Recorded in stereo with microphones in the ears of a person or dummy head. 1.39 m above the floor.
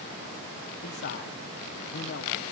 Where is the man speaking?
50° left (ahead or behind), 1.1 m.